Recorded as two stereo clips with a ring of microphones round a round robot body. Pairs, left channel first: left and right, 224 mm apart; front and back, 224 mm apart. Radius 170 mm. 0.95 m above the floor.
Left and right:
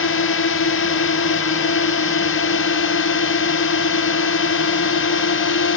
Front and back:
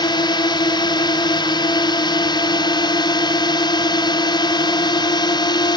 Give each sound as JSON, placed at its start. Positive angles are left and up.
{"t": 0.0, "sound": "a drone", "azimuth_deg": 70}